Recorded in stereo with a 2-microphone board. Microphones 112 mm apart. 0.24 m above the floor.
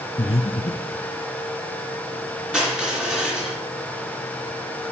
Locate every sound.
0.2 s breathing: 55° left (ahead or behind), 0.7 m
2.5 s crushing: 5° right (ahead or behind), 3 m